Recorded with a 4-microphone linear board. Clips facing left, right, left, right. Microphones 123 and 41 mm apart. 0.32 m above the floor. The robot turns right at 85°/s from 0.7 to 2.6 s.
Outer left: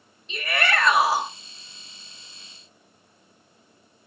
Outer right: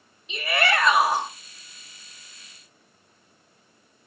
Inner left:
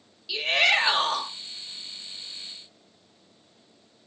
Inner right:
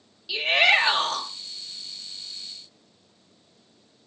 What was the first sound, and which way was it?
A shout, 5° right (ahead or behind).